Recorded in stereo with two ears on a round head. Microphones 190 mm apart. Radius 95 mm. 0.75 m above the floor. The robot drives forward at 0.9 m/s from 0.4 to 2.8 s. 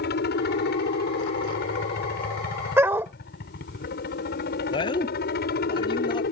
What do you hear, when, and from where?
0.0 s a helicopter: 50° left (ahead or behind)
2.8 s a dog barking: 10° right (ahead or behind)
4.7 s a man speaking: 20° left (ahead or behind)